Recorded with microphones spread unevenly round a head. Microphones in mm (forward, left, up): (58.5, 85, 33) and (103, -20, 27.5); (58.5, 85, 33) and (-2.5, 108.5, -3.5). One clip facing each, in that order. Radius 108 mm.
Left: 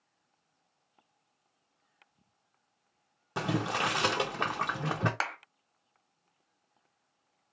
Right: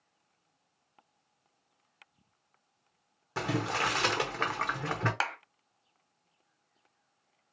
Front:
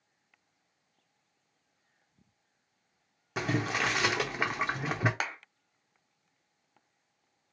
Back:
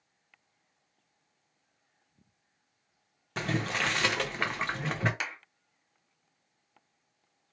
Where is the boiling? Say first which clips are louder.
Left 1 dB, front 1 dB; 45° left, 0.8 m.